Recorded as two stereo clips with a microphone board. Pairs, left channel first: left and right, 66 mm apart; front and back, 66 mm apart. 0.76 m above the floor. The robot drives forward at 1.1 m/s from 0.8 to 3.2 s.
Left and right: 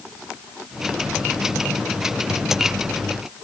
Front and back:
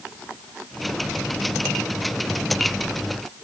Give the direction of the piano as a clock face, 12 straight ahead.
No piano in this recording.